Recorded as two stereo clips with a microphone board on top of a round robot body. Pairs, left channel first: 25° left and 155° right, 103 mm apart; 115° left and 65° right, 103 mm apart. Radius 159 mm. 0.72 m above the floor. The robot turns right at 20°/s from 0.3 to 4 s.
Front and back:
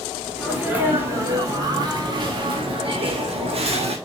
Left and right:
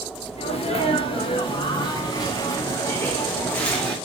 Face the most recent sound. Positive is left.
turn(degrees=-165)